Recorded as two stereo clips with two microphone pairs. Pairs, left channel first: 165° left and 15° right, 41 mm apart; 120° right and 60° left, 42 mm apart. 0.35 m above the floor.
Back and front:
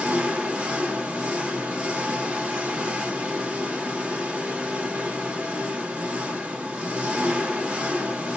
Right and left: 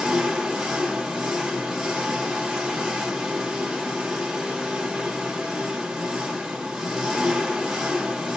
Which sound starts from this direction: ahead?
An engine running, at 0.0 s.